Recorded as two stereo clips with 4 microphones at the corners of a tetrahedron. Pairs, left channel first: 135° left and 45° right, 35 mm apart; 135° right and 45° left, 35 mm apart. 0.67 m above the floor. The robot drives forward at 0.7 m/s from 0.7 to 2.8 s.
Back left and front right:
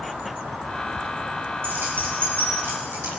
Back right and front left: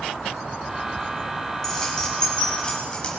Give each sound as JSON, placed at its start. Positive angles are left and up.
{"t": 1.6, "sound": "keys jangling", "azimuth_deg": -55, "distance_m": 4.0}